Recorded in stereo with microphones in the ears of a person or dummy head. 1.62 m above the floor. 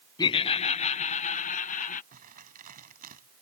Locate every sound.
0.2 s laughter: 20° left (ahead or behind); by 2.0 s 40° left (ahead or behind)
2.1 s crumpling: 40° right (ahead or behind)